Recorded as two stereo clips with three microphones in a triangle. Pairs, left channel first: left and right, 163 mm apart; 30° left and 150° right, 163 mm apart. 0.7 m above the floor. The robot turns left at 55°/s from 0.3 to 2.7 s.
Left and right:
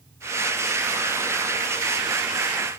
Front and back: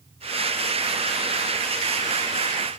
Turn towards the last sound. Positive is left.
No sound to turn to.